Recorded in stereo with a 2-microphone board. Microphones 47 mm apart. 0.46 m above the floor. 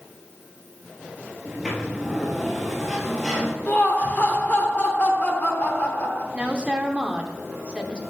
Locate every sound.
1.4 s a sliding door: 5° right (ahead or behind), 1.6 m
3.7 s laughter: 35° left (ahead or behind), 1.1 m
6.3 s a woman speaking: 20° right (ahead or behind), 0.8 m